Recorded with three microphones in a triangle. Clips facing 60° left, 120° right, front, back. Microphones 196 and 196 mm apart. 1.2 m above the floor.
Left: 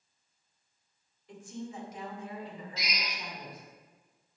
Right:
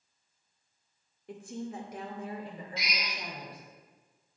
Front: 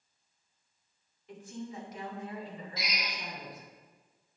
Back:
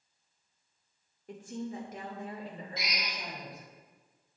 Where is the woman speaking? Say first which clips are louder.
Right 3 dB, back 3 dB; 140° right, 1.8 m; by 3.6 s 145° right, 4 m.